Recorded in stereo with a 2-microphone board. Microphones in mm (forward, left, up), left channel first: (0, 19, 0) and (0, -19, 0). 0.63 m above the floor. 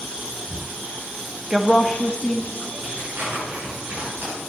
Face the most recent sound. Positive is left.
turn(degrees=-80)